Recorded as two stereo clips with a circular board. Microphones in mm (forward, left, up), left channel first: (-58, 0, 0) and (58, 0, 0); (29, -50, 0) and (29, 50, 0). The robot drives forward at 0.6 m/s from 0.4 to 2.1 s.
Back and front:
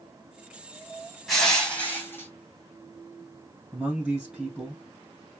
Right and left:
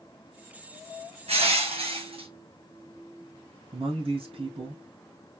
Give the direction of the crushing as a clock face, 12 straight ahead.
9 o'clock.